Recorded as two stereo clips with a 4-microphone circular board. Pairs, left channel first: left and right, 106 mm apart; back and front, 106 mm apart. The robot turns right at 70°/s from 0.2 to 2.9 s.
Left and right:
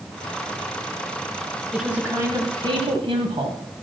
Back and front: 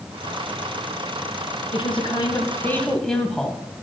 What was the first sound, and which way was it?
A woman speaking, straight behind.